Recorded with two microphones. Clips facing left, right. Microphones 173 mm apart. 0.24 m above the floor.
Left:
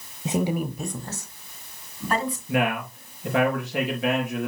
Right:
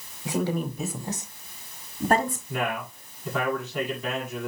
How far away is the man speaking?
About 4.5 m.